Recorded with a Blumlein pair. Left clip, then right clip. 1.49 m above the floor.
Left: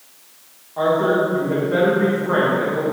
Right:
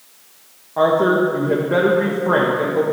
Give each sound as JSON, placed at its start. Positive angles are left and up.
{"t": 0.8, "sound": "a woman speaking", "azimuth_deg": -20, "distance_m": 1.2}